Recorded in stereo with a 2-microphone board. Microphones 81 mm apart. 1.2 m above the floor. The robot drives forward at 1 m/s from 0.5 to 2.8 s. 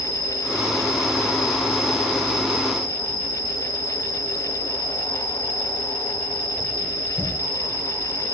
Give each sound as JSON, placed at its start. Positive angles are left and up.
{"t": 0.0, "sound": "an insect", "side_deg": -15, "distance_m": 8.0}